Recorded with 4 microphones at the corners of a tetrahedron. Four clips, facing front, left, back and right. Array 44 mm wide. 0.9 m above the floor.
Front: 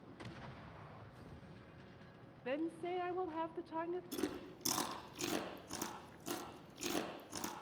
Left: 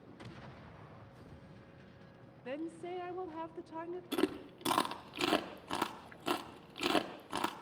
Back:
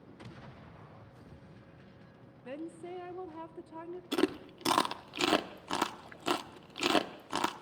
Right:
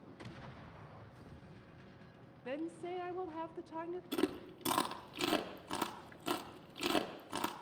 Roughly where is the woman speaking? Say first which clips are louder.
Even, front 2 dB; ahead.